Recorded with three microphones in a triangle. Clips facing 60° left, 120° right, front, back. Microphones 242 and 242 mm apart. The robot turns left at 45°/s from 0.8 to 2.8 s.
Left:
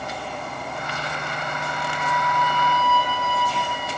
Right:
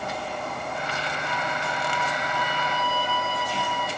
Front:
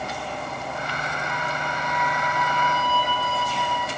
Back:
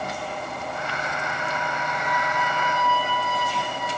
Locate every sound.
1.2 s a flute: 15° left, 6 m; by 3.9 s 55° right, 6 m